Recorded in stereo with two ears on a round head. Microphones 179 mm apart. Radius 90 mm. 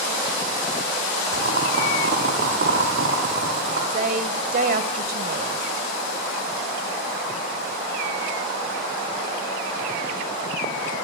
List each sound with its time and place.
1.3 s boiling: 50° right (ahead or behind), 4 m
3.9 s a woman speaking: 45° right (ahead or behind), 1.7 m